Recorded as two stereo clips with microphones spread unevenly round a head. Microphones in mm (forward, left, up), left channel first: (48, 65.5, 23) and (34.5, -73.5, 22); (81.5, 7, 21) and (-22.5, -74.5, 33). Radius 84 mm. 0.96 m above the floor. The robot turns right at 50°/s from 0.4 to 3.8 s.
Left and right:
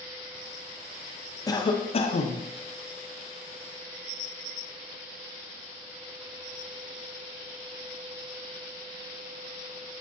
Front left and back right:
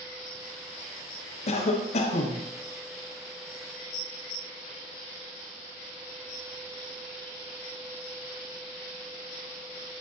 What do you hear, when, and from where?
1.5 s a cough: 25° left, 0.6 m; by 2.4 s 75° left, 0.6 m